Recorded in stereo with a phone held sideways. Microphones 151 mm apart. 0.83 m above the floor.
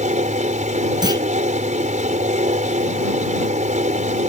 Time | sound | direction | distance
0.0 | a fan | 55° right (ahead or behind) | ?
1.0 | a clunk | 25° right (ahead or behind) | ?